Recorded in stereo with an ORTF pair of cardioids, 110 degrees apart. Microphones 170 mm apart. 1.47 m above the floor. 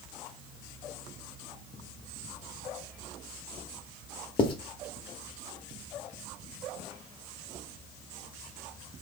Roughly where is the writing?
Ahead left.